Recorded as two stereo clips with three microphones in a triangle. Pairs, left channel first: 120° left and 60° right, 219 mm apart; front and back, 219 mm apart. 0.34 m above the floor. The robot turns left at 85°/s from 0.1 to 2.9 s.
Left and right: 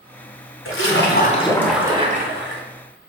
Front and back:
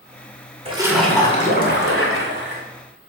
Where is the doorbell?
No doorbell in this recording.